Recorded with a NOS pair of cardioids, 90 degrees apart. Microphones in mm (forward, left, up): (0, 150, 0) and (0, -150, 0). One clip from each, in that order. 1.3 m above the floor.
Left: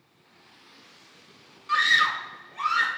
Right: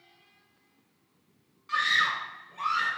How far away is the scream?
About 0.6 m.